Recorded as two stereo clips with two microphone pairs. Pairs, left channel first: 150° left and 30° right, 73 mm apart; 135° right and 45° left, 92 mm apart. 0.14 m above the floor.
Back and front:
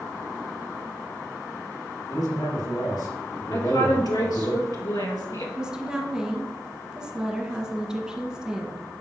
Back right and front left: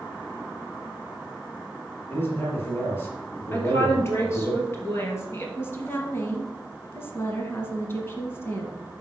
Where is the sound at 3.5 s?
165° left, 2.5 m.